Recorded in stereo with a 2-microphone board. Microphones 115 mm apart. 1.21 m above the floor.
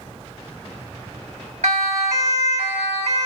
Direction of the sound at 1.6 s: 80° right.